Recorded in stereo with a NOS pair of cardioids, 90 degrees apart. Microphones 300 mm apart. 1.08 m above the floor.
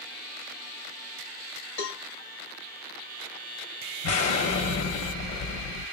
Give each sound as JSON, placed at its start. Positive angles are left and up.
{"t": 1.8, "sound": "a cowbell", "azimuth_deg": 65, "distance_m": 1.6}
{"t": 4.0, "sound": "an explosion", "azimuth_deg": 65, "distance_m": 1.3}